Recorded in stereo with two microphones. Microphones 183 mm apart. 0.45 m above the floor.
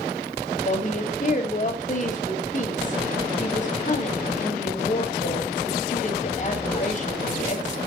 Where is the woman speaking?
45° left (ahead or behind), 2 m.